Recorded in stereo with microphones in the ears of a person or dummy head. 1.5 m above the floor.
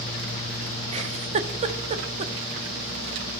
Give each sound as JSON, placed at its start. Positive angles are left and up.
{"t": 0.9, "sound": "a giggle", "side_deg": -40, "distance_m": 1.5}